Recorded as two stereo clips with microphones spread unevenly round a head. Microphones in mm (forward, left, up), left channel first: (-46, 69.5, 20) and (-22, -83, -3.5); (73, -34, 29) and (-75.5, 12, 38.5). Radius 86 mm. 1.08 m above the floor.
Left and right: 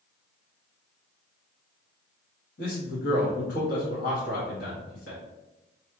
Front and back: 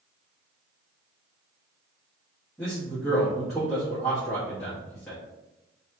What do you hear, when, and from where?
2.6 s a man speaking: 70° left, 1.3 m